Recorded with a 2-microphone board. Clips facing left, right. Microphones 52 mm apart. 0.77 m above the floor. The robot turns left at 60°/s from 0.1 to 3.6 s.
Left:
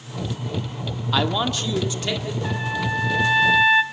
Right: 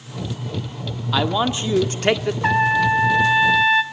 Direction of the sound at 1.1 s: Straight ahead.